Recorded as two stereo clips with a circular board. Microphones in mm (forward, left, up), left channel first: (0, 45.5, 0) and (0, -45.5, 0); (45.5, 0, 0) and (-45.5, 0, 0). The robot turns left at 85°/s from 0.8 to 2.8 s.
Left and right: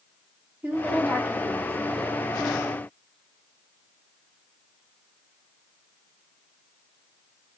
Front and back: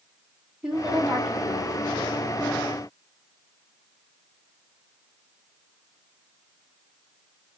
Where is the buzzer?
No buzzer in this recording.